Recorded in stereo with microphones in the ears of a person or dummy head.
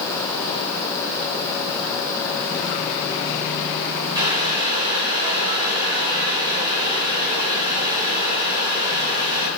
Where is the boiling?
25° right (ahead or behind), 3 m.